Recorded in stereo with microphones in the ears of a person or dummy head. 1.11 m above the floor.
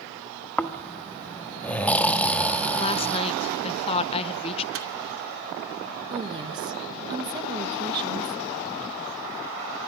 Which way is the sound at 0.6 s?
5° left (ahead or behind).